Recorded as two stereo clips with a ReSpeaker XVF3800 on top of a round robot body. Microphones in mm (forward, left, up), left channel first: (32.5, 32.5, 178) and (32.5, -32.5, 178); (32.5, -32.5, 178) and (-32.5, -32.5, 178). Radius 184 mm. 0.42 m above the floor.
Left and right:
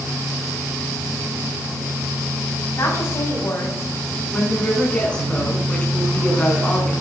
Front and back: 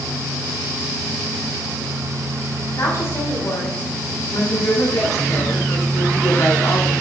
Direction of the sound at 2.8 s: 45° left.